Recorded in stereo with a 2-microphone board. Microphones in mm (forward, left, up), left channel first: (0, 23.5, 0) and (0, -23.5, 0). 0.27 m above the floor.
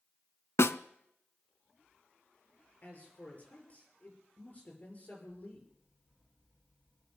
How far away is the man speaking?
About 6.5 m.